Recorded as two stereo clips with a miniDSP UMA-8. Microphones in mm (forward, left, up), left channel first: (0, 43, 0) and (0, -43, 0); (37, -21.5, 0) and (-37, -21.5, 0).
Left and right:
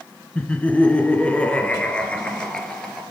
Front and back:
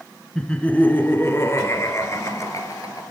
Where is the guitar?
I don't hear a guitar.